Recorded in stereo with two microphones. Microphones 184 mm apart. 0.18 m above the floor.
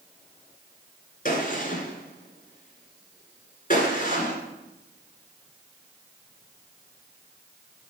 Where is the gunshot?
45° left (ahead or behind), 1.7 m.